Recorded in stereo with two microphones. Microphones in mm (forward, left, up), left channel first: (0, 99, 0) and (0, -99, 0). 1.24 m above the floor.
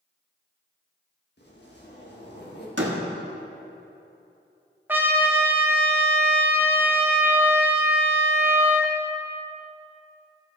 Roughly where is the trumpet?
Centre.